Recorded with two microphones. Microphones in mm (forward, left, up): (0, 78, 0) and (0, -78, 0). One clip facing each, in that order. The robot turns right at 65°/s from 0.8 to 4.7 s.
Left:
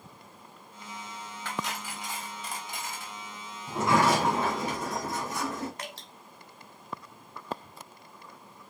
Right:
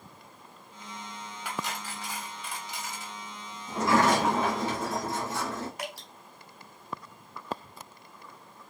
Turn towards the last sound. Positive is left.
turn(degrees=-10)  # may be behind; listen again after turning